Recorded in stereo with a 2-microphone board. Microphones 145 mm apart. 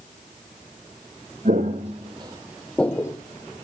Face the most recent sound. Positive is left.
turn(degrees=25)  # may be behind; listen again after turning